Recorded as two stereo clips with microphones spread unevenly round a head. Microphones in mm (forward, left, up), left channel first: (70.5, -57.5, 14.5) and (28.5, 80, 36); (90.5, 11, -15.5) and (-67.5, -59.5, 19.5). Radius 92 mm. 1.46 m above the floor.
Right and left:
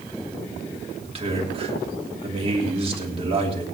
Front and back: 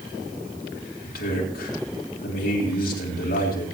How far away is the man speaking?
About 3.5 m.